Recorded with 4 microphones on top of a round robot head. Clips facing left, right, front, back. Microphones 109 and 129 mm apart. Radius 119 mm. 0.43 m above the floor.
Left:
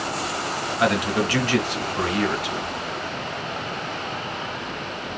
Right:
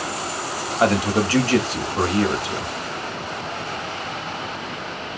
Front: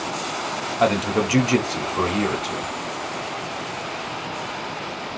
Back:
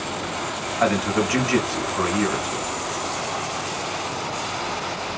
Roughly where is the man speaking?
Ahead right.